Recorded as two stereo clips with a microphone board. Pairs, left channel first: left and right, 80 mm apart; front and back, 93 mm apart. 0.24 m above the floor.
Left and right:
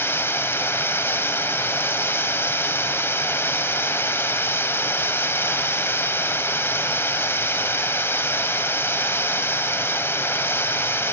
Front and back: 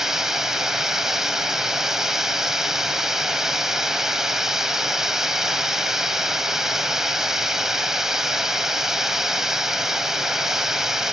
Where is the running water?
100° left, 0.9 m.